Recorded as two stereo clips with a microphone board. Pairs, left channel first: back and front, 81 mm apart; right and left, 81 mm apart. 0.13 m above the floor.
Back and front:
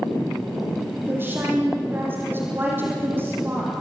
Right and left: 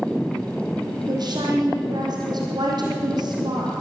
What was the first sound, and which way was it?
A woman speaking, 60° left.